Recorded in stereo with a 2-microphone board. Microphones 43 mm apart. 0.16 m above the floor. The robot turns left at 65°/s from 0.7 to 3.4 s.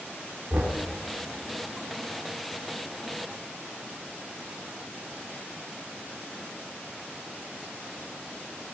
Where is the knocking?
35° right (ahead or behind), 2 m; by 0.8 s 30° right (ahead or behind), 2 m.